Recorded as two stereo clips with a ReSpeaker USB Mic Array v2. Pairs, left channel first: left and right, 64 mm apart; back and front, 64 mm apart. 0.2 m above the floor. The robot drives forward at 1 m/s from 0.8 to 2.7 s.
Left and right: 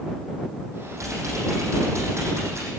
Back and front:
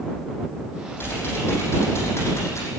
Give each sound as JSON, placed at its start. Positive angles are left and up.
{"t": 1.0, "sound": "typing on a keyboard", "azimuth_deg": -125, "distance_m": 8.5}